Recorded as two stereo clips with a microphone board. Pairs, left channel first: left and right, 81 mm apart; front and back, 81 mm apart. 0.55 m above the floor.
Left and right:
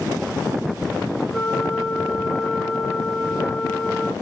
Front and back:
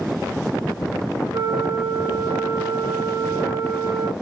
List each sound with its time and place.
1.3 s a flute: 175° left, 1.7 m